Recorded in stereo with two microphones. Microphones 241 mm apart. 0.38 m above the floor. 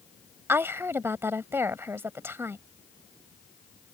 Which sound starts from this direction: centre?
A woman speaking, at 0.5 s.